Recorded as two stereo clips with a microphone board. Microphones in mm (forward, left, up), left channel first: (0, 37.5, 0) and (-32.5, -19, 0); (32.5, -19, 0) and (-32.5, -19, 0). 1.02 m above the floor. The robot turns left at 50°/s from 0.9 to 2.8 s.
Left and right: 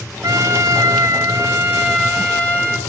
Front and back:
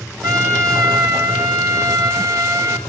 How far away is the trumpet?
About 2.5 m.